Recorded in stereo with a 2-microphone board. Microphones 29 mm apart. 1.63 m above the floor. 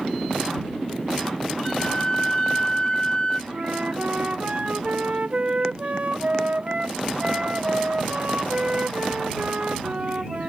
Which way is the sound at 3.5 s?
45° right (ahead or behind).